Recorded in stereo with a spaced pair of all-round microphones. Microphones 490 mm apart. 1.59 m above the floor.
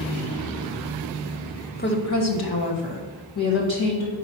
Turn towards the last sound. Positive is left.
turn(degrees=80)